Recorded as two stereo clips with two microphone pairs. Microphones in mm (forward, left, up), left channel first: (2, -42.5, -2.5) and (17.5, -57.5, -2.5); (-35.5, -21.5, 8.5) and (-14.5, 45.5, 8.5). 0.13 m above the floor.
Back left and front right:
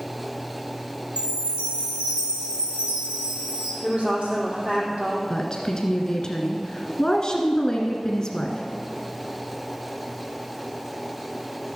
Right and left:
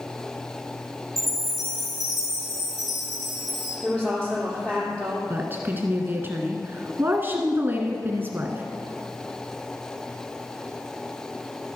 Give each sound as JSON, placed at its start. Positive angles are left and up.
{"t": 1.2, "sound": "a chime", "azimuth_deg": -15, "distance_m": 3.5}
{"t": 3.8, "sound": "a woman speaking", "azimuth_deg": -30, "distance_m": 3.5}
{"t": 5.3, "sound": "a woman speaking", "azimuth_deg": 105, "distance_m": 1.3}